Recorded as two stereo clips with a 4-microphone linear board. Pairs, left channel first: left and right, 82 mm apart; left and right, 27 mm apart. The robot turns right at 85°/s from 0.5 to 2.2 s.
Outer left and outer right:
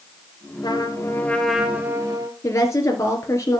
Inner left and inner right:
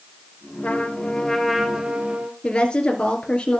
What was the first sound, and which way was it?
A trumpet, 100° left.